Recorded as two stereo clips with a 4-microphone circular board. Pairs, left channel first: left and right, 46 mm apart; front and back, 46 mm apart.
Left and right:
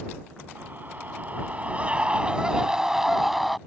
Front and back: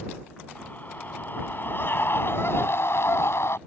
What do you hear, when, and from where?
0.6 s a scream: 45° right; by 3.6 s straight ahead